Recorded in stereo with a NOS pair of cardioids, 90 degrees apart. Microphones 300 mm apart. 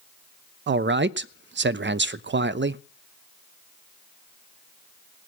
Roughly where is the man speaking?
Ahead right.